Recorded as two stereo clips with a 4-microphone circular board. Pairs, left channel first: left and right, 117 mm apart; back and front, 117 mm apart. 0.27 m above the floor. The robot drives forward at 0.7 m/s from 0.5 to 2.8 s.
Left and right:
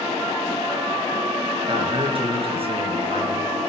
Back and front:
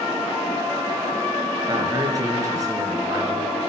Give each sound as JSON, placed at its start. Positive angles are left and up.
{"t": 1.7, "sound": "a man speaking", "azimuth_deg": -50, "distance_m": 4.0}